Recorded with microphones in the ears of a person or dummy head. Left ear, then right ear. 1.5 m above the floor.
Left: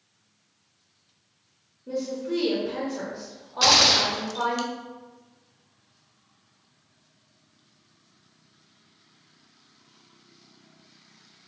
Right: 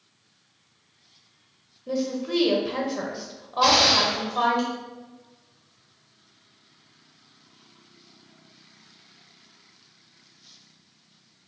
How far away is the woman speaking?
About 0.6 m.